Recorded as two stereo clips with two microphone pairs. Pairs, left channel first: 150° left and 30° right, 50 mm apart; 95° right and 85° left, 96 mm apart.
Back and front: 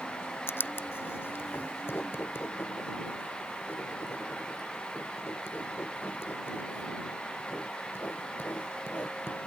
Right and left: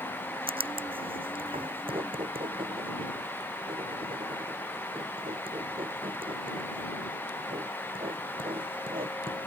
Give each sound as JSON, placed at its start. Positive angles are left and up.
{"t": 0.5, "sound": "writing", "azimuth_deg": 110}